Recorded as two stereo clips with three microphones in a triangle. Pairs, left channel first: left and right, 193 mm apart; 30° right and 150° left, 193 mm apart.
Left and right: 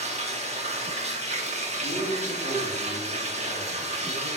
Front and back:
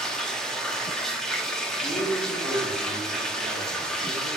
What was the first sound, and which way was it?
Running water, 115° right.